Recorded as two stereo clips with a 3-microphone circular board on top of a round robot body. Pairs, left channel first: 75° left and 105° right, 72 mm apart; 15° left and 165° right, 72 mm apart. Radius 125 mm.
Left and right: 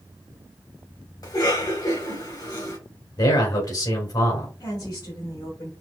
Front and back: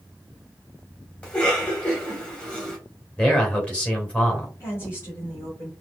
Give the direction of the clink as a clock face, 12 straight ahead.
I don't hear a clink.